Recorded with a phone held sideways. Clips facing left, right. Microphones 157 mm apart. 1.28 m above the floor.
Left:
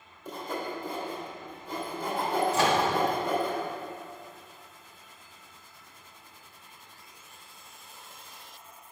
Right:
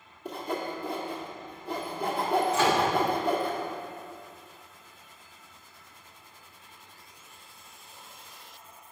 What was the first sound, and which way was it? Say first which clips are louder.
Sawing: right 2 dB; 65° right (ahead or behind).